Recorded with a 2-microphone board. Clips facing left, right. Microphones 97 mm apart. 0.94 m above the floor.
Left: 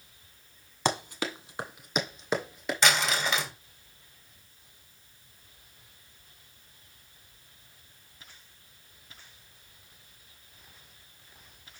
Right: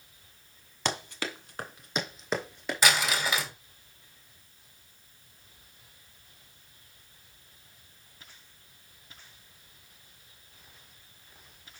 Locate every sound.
0.8 s running footsteps: 15° left (ahead or behind), 1.5 m; by 2.8 s centre (ahead or behind), 3 m
2.8 s crumpling: 10° right (ahead or behind), 2 m